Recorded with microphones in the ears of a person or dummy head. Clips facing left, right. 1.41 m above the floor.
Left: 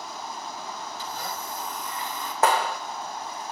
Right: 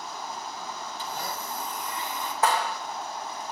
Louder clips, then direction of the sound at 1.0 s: Right 2 dB; 50° right (ahead or behind).